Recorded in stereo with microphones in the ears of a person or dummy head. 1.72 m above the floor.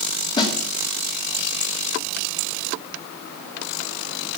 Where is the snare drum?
25° left (ahead or behind), 2 m.